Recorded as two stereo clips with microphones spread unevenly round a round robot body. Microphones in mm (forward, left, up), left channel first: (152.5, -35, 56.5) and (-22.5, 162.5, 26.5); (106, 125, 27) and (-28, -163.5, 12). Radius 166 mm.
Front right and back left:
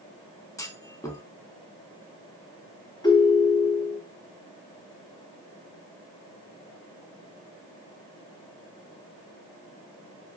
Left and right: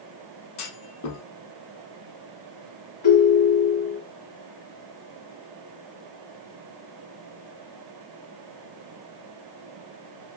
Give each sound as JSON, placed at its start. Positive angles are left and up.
{"t": 0.6, "sound": "a clunk", "azimuth_deg": 30, "distance_m": 0.7}
{"t": 3.0, "sound": "a ringtone", "azimuth_deg": 25, "distance_m": 1.4}